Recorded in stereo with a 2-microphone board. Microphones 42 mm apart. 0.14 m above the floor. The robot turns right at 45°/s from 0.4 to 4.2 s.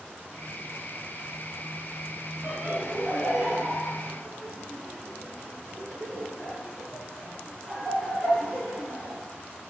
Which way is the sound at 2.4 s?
40° right (ahead or behind).